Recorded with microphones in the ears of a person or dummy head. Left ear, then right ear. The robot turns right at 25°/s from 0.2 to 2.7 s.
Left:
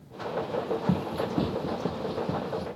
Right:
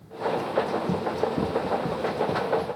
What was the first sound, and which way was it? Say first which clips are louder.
Running footsteps: right 4 dB; 35° left (ahead or behind).